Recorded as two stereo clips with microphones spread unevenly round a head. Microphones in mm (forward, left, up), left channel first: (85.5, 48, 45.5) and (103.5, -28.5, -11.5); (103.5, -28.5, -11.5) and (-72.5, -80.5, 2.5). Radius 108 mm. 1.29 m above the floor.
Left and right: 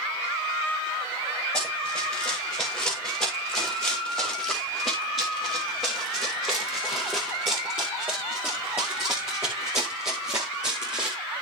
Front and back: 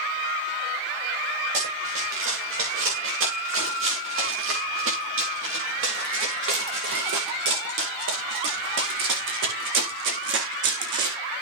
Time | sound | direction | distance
1.5 | running footsteps | 175° right | 9 m